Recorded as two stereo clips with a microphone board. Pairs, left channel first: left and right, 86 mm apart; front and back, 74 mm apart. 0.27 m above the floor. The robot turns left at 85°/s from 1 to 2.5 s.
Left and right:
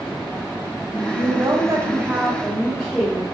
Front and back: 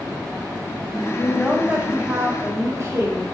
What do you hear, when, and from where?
1.1 s a woman speaking: 60° right, 1.4 m; by 3.2 s 175° right, 1.4 m